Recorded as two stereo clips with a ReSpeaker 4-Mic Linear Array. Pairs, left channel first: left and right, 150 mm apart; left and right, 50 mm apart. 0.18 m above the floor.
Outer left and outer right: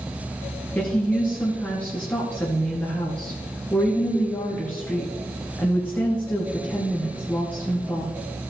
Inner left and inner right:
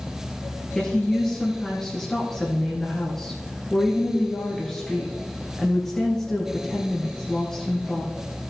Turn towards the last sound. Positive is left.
turn(degrees=10)  # may be behind; listen again after turning